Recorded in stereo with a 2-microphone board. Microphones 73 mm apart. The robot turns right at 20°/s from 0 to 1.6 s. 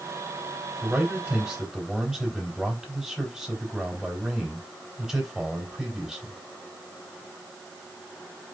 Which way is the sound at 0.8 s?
20° right (ahead or behind).